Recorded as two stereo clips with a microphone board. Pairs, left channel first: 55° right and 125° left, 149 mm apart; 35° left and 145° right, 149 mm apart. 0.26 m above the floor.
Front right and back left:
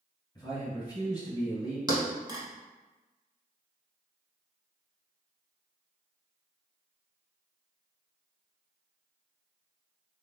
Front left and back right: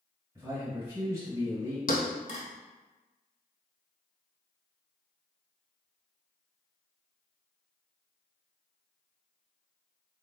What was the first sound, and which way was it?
A man speaking, 90° right.